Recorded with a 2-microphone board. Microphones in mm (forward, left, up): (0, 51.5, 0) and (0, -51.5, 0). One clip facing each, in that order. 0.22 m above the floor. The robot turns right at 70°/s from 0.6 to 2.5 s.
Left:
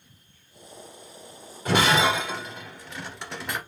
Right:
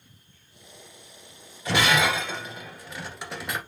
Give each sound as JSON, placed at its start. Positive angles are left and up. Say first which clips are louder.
{"t": 1.6, "sound": "breaking glass", "louder": "left 2 dB", "side_deg": 55, "distance_m": 1.7}